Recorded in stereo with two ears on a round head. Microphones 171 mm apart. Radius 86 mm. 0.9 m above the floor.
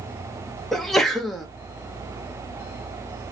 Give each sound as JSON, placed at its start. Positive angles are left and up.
{"t": 0.7, "sound": "a sneeze", "side_deg": 0, "distance_m": 0.5}